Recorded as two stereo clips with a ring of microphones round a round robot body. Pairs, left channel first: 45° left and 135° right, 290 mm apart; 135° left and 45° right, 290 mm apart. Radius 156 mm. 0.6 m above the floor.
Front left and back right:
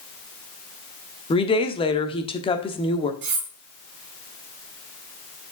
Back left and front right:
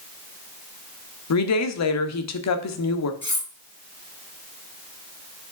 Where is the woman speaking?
115° left, 1.3 m.